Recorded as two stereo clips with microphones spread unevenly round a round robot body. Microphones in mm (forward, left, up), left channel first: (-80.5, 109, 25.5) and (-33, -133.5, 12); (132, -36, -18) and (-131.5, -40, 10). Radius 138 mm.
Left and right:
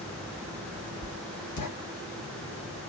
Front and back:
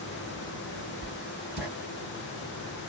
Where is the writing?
90° left, 1.9 m.